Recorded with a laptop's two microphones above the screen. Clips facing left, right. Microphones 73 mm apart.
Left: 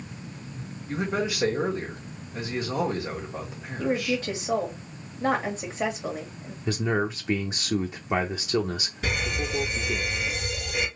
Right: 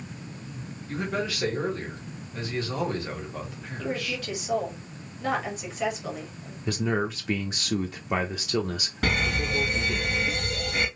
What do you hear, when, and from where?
0.9 s a man speaking: 15° left (ahead or behind), 1.6 m
3.8 s a woman speaking: 30° left (ahead or behind), 1.6 m
6.7 s a man speaking: 5° left (ahead or behind), 0.7 m
9.0 s a fire alarm: 60° right (ahead or behind), 2.5 m